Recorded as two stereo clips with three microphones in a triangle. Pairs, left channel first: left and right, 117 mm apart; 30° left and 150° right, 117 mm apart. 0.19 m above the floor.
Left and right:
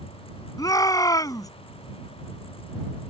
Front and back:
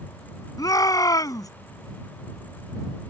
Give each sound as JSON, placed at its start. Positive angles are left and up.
{"t": 0.6, "sound": "a shout", "azimuth_deg": 60}